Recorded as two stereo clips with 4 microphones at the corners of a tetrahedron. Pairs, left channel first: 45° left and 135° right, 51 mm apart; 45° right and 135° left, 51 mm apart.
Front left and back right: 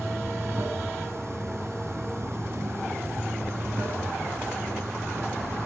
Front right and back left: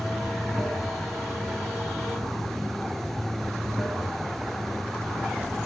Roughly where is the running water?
Behind right.